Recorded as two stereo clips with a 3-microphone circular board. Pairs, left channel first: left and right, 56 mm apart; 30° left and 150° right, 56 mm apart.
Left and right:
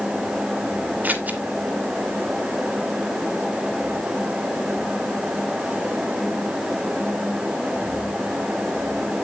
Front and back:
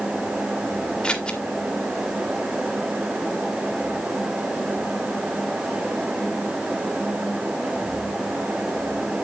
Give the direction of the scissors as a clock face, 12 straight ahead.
1 o'clock.